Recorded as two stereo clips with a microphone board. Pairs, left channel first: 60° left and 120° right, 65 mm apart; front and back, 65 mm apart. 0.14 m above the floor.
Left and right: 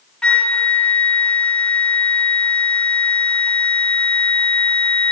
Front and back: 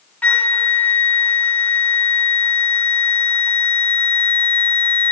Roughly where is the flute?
Ahead.